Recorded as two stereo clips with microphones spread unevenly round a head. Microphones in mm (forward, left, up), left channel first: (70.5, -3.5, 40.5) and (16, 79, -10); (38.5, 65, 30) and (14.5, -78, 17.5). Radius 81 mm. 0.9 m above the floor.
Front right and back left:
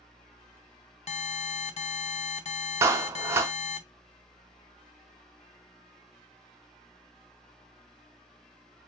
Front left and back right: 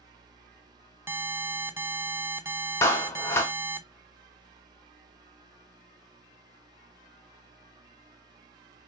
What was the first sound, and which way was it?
An alarm, 30° right.